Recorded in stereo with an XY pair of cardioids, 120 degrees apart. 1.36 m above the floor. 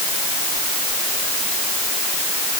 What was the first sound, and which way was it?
Only background noise.